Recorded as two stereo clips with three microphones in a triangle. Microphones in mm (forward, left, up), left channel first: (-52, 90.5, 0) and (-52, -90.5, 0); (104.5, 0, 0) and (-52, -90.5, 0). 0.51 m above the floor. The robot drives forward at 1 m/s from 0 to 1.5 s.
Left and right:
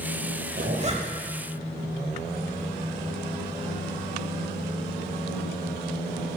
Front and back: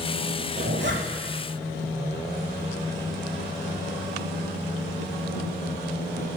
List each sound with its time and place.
0.6 s a zipper: 130° right, 0.8 m; by 1.3 s 155° right, 1.4 m